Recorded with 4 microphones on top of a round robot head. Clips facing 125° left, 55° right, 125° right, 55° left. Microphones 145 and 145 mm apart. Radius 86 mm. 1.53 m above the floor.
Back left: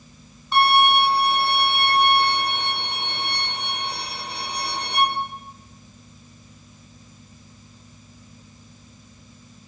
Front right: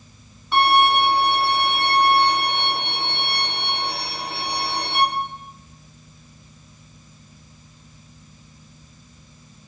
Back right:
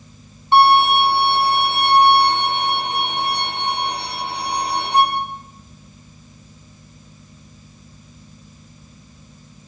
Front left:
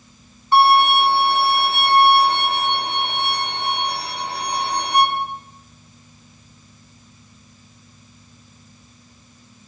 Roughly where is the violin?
Ahead right.